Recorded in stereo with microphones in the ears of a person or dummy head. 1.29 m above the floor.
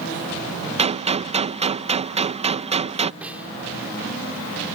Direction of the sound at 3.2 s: 5° right (ahead or behind).